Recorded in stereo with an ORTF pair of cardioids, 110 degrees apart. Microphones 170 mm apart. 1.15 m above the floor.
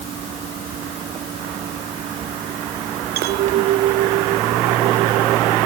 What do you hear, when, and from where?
0.0 s a fan: 50° right
3.2 s a clink: 70° right